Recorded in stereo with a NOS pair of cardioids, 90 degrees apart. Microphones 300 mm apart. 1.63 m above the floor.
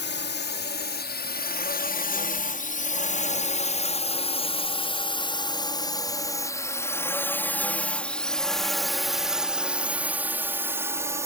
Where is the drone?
40° left; by 11.3 s 10° right.